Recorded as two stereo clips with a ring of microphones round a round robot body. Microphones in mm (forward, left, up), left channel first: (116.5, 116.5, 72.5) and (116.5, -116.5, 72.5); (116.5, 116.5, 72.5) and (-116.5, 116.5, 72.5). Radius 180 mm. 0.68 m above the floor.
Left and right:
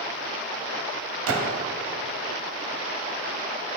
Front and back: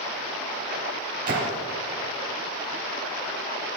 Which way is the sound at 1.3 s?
120° right.